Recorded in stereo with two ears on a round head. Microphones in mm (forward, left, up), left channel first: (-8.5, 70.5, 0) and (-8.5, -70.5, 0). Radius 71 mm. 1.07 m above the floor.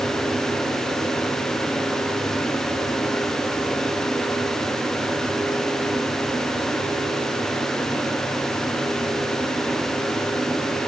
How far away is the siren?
No siren in this recording.